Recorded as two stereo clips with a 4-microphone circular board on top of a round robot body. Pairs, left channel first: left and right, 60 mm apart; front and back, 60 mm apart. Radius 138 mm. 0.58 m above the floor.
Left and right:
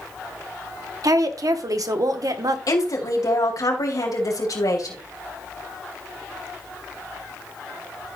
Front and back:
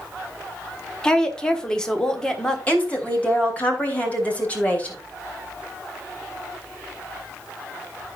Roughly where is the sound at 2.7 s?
Ahead left.